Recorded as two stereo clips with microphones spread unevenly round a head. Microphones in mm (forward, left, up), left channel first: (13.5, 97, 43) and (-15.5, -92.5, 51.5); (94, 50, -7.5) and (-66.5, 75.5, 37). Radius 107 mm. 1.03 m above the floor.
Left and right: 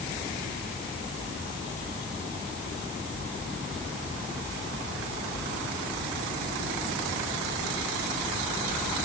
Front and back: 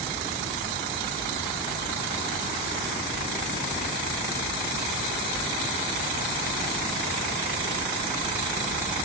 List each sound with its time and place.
Only background noise.